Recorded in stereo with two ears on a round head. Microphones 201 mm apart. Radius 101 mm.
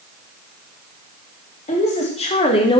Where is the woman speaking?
30° left (ahead or behind), 3 m; by 2.8 s 20° left (ahead or behind), 1.5 m.